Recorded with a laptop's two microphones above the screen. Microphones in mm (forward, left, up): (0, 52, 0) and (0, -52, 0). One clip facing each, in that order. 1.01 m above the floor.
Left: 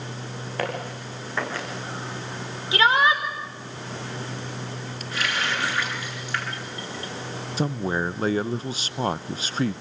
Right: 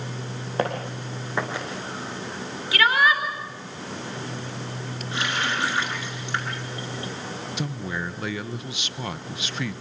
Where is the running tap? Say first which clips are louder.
Even; 25° right (ahead or behind), 7.5 m.